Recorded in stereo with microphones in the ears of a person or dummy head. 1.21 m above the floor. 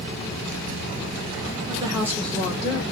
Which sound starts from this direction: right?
A woman speaking, at 1.7 s.